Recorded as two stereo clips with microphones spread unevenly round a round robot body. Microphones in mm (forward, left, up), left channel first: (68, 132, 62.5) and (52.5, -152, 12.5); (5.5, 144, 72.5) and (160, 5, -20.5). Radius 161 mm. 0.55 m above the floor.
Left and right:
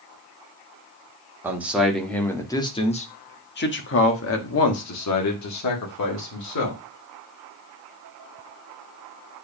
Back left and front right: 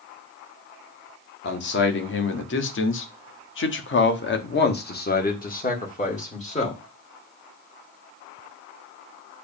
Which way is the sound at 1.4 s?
165° right.